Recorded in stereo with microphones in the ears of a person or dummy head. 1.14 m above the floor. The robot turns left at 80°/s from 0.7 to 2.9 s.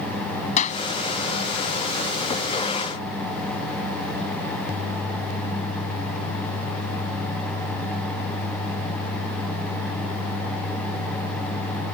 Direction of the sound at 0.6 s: 50° left (ahead or behind).